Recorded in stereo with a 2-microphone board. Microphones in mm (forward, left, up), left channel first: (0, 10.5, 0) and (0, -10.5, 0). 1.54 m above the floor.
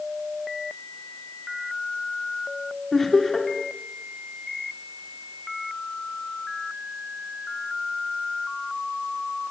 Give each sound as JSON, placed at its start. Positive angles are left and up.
{"t": 2.9, "sound": "laughter", "side_deg": 15, "distance_m": 3.5}